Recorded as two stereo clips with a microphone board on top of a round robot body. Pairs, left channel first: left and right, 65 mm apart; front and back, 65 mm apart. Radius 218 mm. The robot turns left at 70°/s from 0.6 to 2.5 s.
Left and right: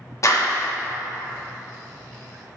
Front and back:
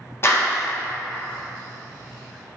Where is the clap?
50° left, 1.3 m; by 0.7 s 45° left, 1.3 m.